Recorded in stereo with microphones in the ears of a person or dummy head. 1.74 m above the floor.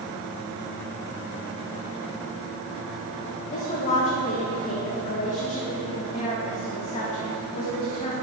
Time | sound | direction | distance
3.5 | a woman speaking | 40° left (ahead or behind) | 0.8 m